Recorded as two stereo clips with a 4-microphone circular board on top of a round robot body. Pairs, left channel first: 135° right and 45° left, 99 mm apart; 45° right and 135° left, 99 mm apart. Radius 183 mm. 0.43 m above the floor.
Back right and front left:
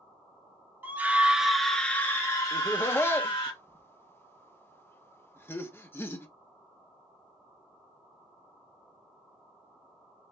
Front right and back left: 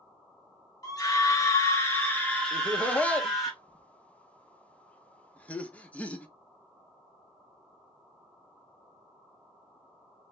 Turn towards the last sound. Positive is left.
turn(degrees=-105)